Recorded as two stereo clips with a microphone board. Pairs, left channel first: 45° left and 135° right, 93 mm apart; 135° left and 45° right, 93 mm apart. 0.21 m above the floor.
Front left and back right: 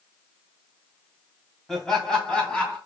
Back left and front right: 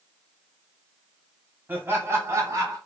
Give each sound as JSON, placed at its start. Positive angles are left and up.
{"t": 1.7, "sound": "laughter", "azimuth_deg": -35, "distance_m": 1.1}